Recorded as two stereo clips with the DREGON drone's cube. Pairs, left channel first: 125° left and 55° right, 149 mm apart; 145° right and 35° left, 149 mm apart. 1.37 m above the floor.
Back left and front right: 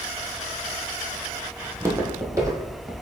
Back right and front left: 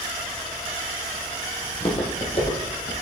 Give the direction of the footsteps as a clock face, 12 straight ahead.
4 o'clock.